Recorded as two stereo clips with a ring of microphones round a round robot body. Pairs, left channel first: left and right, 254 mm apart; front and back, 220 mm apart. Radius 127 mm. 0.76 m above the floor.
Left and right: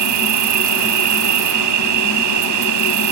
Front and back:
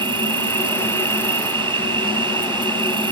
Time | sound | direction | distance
0.0 | an insect | 105° right | ?